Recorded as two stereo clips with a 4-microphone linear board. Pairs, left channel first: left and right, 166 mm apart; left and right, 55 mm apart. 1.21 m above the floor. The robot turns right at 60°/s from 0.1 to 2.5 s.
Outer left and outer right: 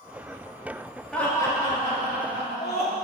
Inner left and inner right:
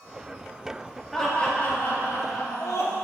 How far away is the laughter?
About 2.5 m.